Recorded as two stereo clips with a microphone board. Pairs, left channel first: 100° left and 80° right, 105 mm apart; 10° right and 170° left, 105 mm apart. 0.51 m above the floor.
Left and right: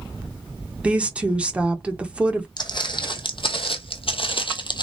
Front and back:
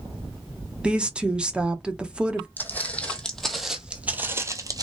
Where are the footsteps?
60° left, 1.2 m; by 4.8 s 130° left, 0.8 m.